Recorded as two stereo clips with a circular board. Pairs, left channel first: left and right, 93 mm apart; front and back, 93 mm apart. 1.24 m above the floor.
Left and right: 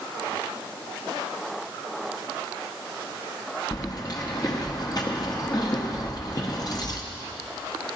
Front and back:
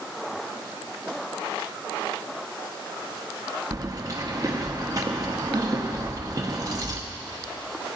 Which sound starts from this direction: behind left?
Keys jangling, at 3.7 s.